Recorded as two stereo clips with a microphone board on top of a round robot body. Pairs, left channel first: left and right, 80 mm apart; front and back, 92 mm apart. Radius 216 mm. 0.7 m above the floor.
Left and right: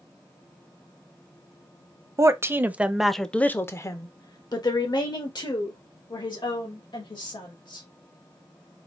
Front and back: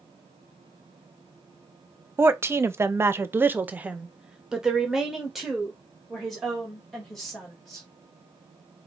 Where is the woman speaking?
125° right, 1.1 m; by 7.9 s 85° left, 3.5 m.